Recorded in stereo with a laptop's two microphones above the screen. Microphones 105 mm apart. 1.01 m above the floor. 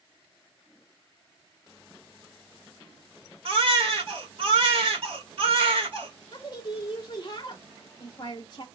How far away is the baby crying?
About 1.6 m.